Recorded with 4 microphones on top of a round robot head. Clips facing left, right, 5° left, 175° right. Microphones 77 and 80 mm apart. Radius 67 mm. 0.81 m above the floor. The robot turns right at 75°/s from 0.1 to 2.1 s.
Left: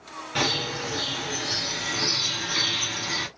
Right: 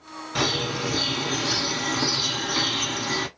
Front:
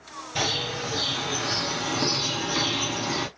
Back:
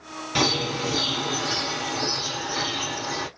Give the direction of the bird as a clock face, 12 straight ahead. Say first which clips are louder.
Right 2 dB, back 5 dB; 6 o'clock.